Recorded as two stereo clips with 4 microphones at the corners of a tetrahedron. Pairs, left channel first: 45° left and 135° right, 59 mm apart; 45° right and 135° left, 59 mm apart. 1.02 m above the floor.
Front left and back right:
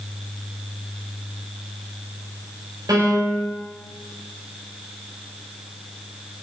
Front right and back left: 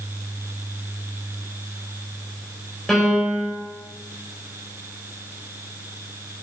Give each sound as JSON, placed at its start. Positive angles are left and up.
{"t": 2.9, "sound": "a piano", "azimuth_deg": -135, "distance_m": 4.0}